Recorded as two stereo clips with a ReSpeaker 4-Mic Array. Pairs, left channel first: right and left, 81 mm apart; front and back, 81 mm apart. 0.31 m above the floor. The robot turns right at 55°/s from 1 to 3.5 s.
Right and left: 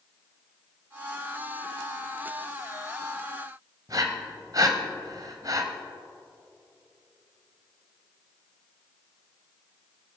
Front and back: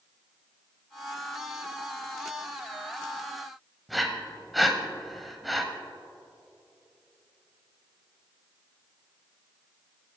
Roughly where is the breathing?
Left.